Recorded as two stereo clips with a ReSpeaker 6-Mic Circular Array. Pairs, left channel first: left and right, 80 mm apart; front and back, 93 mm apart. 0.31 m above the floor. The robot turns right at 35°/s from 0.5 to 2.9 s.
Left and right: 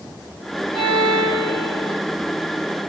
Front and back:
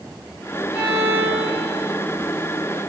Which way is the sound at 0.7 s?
100° right.